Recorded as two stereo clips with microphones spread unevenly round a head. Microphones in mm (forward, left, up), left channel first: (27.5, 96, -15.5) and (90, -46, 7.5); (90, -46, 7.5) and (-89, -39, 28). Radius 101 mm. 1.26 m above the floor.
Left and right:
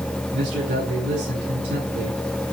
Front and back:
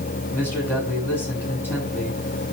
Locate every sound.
0.3 s a man speaking: 80° right, 8.5 m